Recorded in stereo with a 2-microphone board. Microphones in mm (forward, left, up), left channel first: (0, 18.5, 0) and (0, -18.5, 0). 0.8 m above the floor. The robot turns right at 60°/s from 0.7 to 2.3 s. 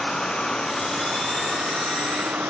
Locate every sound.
0.0 s a vehicle: 160° left; by 2.5 s 100° right